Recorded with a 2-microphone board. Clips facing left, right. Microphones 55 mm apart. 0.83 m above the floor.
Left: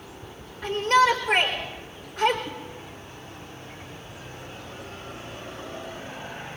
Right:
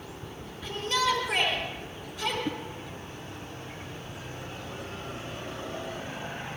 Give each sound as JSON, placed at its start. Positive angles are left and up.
{"t": 0.6, "sound": "a shout", "side_deg": 60, "distance_m": 3.5}
{"t": 2.5, "sound": "a whoosh", "side_deg": -50, "distance_m": 1.0}